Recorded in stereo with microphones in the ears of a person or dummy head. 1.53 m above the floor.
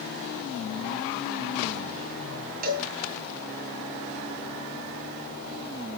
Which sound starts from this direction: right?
A cowbell, at 2.6 s.